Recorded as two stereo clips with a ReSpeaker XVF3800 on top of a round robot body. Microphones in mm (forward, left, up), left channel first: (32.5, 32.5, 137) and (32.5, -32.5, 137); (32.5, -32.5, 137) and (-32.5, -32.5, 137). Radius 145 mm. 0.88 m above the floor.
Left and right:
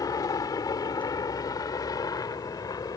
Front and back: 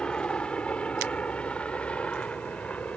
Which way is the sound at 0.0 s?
75° left.